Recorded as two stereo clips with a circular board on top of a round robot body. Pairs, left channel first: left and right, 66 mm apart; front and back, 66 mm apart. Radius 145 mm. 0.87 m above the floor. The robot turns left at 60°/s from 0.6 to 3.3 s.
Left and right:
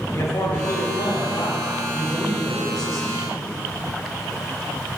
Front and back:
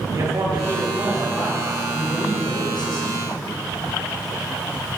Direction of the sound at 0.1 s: 135° left.